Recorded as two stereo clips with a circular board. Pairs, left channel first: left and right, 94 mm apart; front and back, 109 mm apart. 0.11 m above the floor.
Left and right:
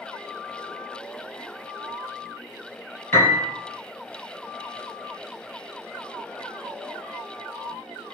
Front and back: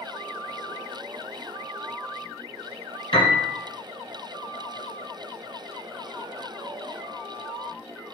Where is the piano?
30° left, 1.6 m.